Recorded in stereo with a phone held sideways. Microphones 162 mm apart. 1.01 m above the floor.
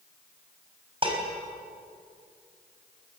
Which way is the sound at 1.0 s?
35° right (ahead or behind).